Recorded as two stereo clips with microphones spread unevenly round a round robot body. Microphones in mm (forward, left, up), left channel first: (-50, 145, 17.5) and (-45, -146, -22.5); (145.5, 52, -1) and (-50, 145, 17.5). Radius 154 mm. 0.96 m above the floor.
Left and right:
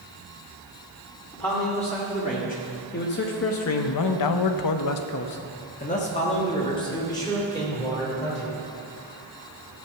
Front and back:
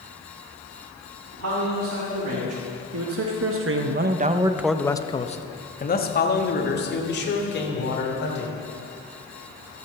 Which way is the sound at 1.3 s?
165° left.